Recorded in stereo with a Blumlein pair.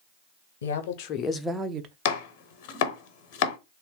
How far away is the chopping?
About 0.8 m.